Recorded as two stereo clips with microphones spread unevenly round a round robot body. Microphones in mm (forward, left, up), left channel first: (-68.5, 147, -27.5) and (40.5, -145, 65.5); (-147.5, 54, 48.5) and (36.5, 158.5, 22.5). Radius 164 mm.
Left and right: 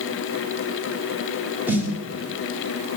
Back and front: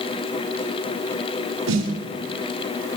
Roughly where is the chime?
No chime in this recording.